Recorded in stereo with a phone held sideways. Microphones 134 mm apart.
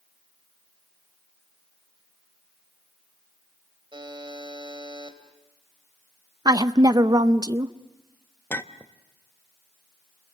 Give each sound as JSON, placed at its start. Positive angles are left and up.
{"t": 3.9, "sound": "a buzzer", "side_deg": -40, "distance_m": 2.5}
{"t": 6.5, "sound": "a woman speaking", "side_deg": -30, "distance_m": 0.6}
{"t": 8.5, "sound": "a clink", "side_deg": 15, "distance_m": 0.7}